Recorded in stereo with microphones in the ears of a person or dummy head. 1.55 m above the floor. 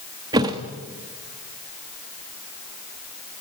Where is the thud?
20° right (ahead or behind), 1.2 m.